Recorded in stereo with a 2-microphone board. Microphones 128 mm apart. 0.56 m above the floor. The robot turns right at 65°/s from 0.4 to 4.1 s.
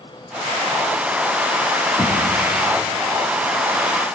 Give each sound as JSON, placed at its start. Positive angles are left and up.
{"t": 2.0, "sound": "knocking", "side_deg": 35, "distance_m": 6.0}